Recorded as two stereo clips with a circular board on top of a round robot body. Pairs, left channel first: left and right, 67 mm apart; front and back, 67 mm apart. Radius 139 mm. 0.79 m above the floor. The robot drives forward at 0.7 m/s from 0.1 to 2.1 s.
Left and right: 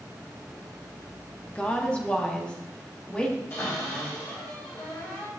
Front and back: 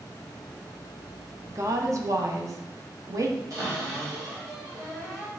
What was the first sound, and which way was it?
A woman speaking, 155° left.